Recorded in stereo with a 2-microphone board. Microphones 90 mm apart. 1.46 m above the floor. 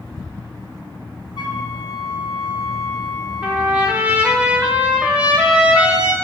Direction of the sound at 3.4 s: 15° right (ahead or behind).